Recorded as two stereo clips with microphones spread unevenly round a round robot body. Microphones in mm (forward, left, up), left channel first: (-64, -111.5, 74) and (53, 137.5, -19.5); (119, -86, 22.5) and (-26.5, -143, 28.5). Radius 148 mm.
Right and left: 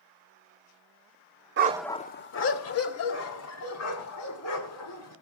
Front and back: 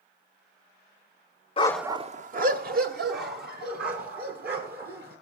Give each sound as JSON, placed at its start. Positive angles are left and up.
{"t": 1.6, "sound": "a dog barking", "azimuth_deg": 5, "distance_m": 0.6}